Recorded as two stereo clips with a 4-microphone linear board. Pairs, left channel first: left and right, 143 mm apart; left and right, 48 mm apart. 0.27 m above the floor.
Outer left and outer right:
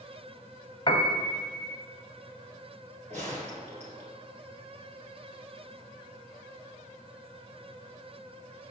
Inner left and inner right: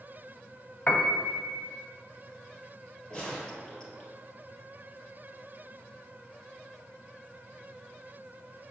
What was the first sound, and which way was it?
A piano, 35° left (ahead or behind).